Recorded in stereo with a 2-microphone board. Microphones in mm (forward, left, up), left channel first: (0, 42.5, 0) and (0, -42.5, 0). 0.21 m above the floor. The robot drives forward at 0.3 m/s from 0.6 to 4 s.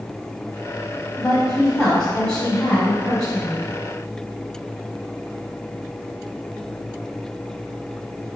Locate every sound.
1.2 s a woman speaking: 10° left (ahead or behind), 1.1 m